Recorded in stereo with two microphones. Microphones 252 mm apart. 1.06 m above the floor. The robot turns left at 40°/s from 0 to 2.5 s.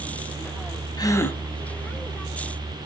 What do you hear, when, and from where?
1.0 s a gasp: 15° left (ahead or behind), 0.7 m; by 1.4 s 5° left (ahead or behind), 0.7 m